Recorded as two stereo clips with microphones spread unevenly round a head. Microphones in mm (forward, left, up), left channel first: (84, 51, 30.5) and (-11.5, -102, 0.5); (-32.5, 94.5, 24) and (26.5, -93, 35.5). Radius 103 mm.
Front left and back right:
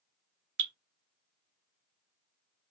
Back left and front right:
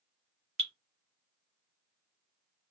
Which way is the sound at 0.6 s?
125° right.